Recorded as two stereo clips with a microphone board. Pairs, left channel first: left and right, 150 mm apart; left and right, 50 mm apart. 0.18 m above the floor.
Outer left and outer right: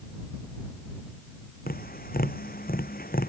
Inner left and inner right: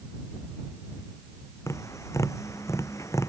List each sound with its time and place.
1.7 s tapping: 80° left